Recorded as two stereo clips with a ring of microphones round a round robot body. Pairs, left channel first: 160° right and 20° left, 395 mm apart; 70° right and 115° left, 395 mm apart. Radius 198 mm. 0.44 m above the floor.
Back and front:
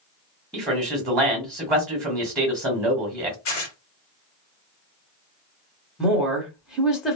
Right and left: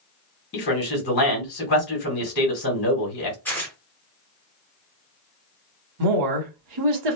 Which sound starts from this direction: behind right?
Tearing paper, at 3.5 s.